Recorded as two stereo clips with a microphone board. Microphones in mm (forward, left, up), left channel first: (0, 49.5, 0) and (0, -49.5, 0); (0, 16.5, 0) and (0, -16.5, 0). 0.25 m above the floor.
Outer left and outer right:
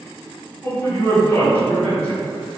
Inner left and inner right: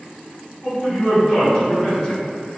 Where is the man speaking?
25° left (ahead or behind), 1.5 m.